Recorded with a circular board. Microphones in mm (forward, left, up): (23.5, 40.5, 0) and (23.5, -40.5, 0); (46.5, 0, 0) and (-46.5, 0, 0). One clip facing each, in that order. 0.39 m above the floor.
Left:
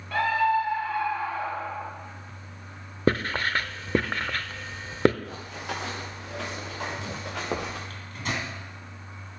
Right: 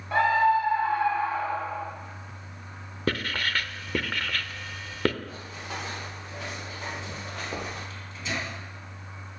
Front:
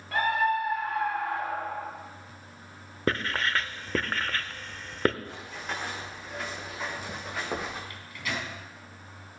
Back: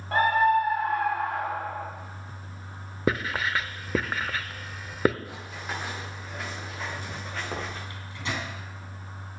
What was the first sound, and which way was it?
A scream, 145° right.